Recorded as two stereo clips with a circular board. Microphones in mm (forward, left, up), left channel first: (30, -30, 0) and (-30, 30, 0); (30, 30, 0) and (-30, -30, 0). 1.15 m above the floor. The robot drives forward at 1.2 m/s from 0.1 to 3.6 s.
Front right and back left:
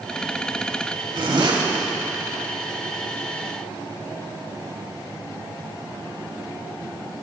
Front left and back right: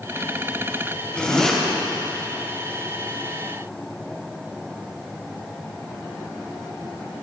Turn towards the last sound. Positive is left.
turn(degrees=150)